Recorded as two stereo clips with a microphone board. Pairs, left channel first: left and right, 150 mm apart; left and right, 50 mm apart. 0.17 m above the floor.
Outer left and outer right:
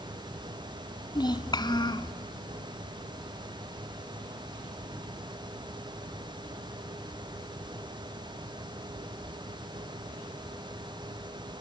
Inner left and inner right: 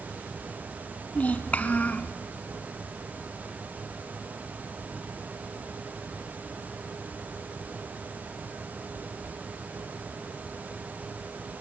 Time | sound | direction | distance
1.1 | a child speaking | 30° left (ahead or behind) | 1.0 m